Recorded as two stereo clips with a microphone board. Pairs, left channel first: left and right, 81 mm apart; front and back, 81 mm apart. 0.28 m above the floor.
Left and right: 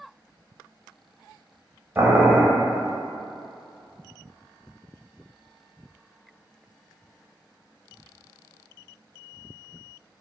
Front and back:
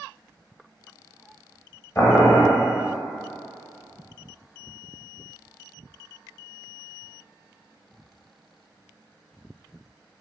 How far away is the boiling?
About 0.7 m.